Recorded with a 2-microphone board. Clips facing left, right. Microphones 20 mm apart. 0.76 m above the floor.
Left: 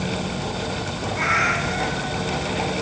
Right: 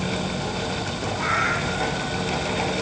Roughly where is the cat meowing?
Left.